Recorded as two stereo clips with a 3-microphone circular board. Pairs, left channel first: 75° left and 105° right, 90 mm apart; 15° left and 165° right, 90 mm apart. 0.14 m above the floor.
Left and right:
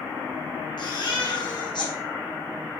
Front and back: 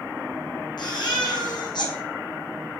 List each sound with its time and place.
0.8 s a baby crying: 45° left, 2 m